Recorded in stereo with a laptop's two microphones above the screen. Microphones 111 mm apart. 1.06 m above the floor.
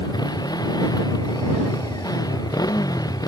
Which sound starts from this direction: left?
A motorcycle, at 0.0 s.